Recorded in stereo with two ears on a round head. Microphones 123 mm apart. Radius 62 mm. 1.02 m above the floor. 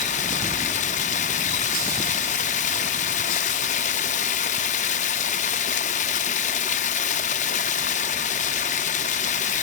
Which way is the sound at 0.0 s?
55° left (ahead or behind).